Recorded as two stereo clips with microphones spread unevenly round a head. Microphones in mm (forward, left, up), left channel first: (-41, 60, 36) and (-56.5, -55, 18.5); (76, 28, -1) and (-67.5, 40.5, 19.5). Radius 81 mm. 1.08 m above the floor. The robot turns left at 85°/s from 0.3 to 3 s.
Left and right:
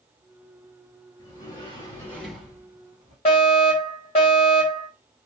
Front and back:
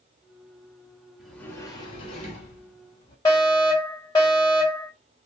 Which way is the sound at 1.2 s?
100° left.